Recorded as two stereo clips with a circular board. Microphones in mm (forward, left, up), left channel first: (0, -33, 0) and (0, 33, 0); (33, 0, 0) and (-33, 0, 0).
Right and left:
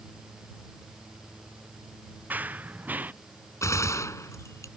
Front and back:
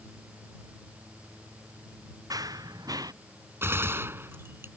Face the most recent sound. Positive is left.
turn(degrees=-130)